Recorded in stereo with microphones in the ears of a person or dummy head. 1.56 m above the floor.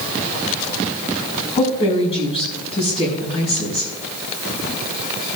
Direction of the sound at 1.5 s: 25° left (ahead or behind).